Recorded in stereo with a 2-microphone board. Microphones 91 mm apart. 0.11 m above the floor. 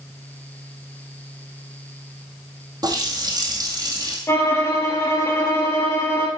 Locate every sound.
2.8 s a running tap: 45° right (ahead or behind), 2 m
4.3 s a violin: 30° left (ahead or behind), 2.5 m